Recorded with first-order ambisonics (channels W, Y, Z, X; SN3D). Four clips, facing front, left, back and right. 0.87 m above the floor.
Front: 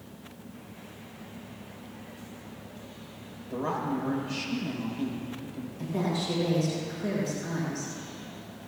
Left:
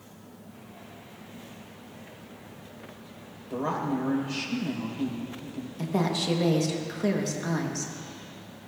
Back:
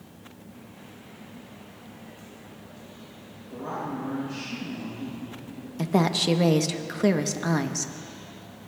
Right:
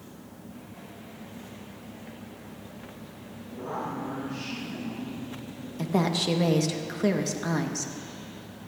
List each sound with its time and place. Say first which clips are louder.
3.5 s a woman speaking: left 5 dB, front 3 dB; 60° left, 4 m
5.8 s a woman speaking: right 2 dB, back 7 dB; 170° right, 1.0 m